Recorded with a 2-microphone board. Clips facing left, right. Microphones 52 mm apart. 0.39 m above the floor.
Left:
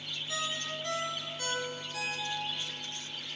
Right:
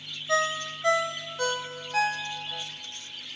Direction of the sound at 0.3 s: 65° right (ahead or behind).